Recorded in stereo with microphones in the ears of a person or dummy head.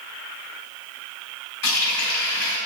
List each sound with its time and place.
1.6 s a running tap: 75° left (ahead or behind), 3.5 m